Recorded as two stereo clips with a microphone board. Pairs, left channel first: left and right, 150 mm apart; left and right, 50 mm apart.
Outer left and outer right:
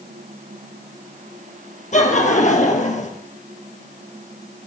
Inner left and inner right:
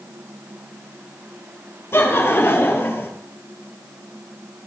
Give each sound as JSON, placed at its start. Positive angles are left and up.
{"t": 1.9, "sound": "laughter", "side_deg": 55, "distance_m": 2.0}